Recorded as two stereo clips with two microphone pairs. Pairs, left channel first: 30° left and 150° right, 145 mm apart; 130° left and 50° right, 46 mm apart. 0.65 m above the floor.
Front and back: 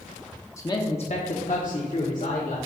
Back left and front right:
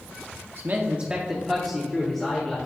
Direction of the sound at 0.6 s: 30° right.